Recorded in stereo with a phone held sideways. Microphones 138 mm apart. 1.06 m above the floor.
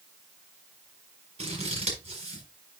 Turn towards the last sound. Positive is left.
turn(degrees=-50)  # may be behind; listen again after turning